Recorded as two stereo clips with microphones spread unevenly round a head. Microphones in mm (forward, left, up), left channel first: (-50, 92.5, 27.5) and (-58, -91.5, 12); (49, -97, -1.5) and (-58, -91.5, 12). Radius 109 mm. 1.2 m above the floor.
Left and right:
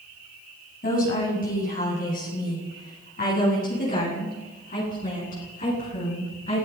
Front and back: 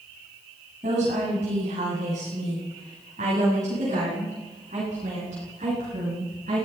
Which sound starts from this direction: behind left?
A woman speaking, at 0.8 s.